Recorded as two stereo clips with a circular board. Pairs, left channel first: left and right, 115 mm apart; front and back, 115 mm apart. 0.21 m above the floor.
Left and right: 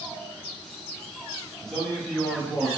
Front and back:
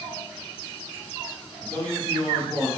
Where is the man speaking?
15° left, 1.0 m; by 2.7 s 150° left, 1.3 m.